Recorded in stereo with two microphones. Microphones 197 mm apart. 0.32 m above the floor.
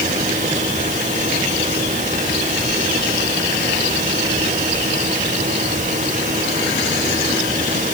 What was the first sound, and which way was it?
Only background noise.